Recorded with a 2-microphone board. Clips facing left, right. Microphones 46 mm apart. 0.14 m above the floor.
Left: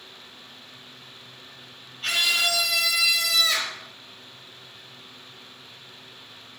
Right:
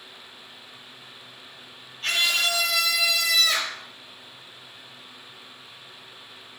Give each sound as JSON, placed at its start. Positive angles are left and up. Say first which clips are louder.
{"t": 2.0, "sound": "a scream", "louder": "even", "side_deg": 5, "distance_m": 4.0}